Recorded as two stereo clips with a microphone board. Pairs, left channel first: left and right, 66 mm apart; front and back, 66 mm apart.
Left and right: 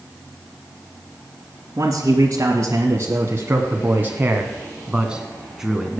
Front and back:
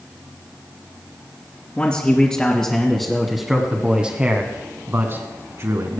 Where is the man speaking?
65° right, 2 m; by 6.0 s straight behind, 1.9 m.